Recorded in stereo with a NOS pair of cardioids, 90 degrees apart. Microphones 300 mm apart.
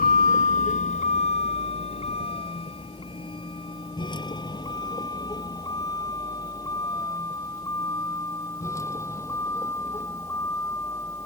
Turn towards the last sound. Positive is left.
turn(degrees=10)